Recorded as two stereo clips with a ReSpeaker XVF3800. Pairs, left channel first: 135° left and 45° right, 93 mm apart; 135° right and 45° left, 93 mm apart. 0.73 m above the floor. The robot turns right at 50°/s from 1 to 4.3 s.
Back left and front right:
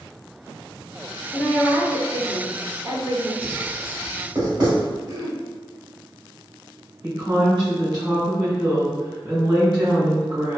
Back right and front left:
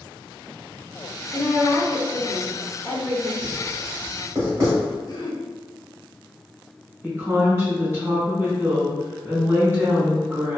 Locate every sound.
1.3 s a woman speaking: 175° left, 1.5 m; by 3.3 s 90° right, 1.5 m
3.4 s writing: 45° right, 1.6 m; by 5.0 s straight ahead, 1.6 m
5.1 s throat clearing: 90° right, 0.6 m
7.0 s a woman speaking: 15° right, 1.6 m